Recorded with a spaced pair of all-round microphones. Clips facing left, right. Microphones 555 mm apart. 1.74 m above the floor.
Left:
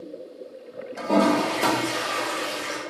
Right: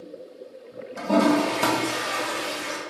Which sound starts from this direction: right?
A toilet flushing, at 1.0 s.